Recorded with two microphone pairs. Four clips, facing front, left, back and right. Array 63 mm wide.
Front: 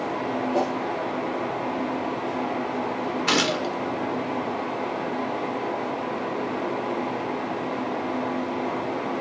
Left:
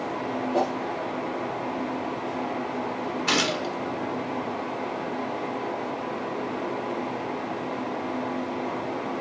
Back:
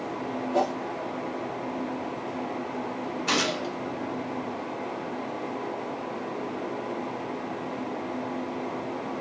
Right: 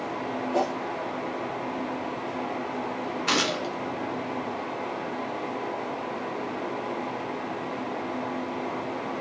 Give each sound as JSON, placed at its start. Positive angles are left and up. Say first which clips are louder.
{"t": 0.5, "sound": "a whoosh", "louder": "left 1 dB, back 1 dB", "azimuth_deg": -90, "distance_m": 1.4}
{"t": 3.3, "sound": "a gunshot", "louder": "left 1 dB, front 3 dB", "azimuth_deg": 0, "distance_m": 0.7}